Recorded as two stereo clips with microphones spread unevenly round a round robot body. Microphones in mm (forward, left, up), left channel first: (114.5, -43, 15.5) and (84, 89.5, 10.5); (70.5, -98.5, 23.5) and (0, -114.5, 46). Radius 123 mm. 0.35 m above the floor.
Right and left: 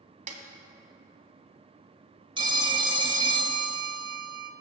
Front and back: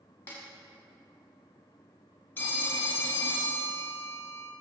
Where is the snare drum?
75° left, 1.5 m.